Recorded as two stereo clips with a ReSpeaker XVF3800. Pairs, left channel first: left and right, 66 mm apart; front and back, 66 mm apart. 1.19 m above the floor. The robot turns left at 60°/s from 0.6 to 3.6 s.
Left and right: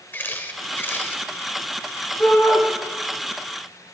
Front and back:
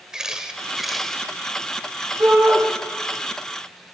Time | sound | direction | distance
0.1 | a camera shutter | 110° left | 1.0 m
2.2 | a shout | 140° left | 8.5 m